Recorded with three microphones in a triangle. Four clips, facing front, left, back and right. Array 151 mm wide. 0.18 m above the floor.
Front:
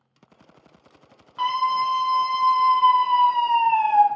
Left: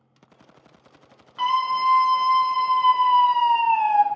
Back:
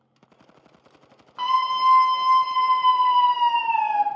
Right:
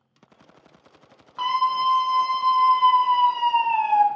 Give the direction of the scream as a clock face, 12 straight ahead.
4 o'clock.